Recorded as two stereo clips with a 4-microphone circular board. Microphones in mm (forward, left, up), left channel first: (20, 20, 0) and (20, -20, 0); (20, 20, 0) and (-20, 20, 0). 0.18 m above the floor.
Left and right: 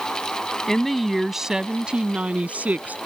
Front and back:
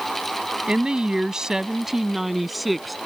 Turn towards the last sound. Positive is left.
turn(degrees=-90)